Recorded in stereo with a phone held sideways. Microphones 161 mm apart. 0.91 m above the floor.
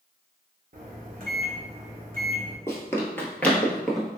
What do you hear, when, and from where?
0.7 s a microwave: 60° right (ahead or behind), 1.0 m
2.7 s running footsteps: 15° left (ahead or behind), 1.0 m; by 4.2 s centre (ahead or behind), 1.0 m